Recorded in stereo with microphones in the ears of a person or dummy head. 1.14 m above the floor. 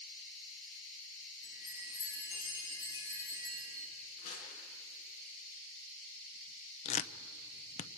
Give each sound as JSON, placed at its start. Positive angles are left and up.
{"t": 1.4, "sound": "a chime", "side_deg": -15, "distance_m": 7.0}
{"t": 4.2, "sound": "crumpling", "side_deg": 40, "distance_m": 9.5}
{"t": 6.8, "sound": "tearing paper", "side_deg": 35, "distance_m": 0.6}